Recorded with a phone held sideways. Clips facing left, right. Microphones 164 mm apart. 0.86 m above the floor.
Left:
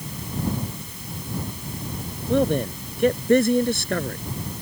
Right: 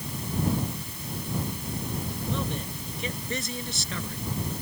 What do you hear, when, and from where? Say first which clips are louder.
2.3 s a man speaking: left 14 dB; 60° left (ahead or behind)